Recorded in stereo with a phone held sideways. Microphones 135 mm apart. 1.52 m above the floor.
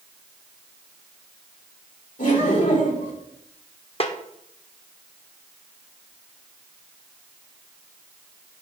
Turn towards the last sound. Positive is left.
turn(degrees=45)  # may be behind; listen again after turning